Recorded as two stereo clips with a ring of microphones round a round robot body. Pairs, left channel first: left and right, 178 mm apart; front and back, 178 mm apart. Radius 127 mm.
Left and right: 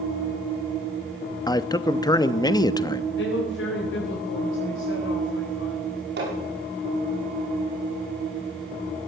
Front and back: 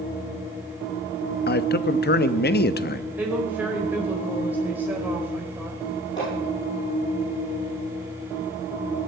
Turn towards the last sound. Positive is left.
turn(degrees=-75)